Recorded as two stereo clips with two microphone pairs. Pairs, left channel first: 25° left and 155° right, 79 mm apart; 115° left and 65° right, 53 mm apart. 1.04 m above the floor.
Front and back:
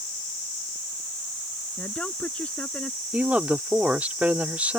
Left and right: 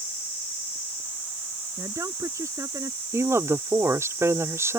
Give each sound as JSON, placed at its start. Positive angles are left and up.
{"t": 1.8, "sound": "a woman speaking", "azimuth_deg": -50}
{"t": 3.1, "sound": "a woman speaking", "azimuth_deg": -85}